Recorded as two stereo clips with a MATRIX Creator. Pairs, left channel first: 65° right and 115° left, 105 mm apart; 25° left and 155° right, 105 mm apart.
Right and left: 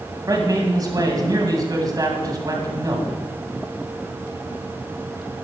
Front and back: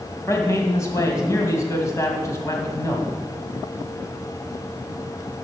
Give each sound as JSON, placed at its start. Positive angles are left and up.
{"t": 0.3, "sound": "a man speaking", "azimuth_deg": 75, "distance_m": 2.5}